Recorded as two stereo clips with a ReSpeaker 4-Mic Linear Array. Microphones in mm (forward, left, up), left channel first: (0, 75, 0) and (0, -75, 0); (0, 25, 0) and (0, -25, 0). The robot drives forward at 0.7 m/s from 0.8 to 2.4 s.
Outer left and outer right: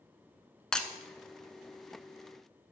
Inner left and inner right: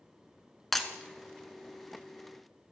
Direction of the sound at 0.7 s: 5° left (ahead or behind).